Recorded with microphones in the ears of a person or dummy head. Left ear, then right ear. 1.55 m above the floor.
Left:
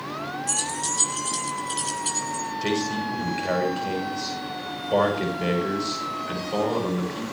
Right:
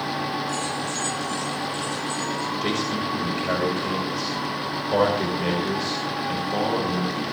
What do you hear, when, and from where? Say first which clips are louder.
0.5 s keys jangling: even; 70° left (ahead or behind), 7.5 m; by 2.5 s 60° left (ahead or behind), 9 m
2.6 s a man speaking: left 2 dB; 10° left (ahead or behind), 7.5 m